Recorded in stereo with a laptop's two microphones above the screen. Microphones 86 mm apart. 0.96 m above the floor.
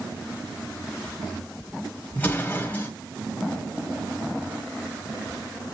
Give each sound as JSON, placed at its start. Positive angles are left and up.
{"t": 2.1, "sound": "an explosion", "side_deg": 20, "distance_m": 1.6}